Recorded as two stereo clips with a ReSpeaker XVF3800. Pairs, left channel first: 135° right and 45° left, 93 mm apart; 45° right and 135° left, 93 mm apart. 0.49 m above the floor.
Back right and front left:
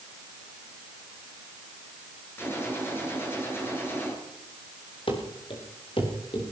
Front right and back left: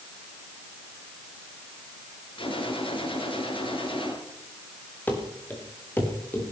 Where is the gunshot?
70° right, 7.5 m.